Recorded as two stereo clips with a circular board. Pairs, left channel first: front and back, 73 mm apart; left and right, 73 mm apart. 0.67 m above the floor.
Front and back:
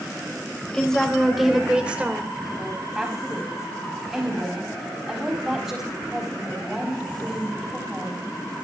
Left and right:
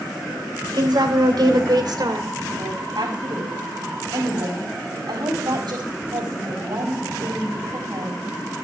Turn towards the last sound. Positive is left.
turn(degrees=-100)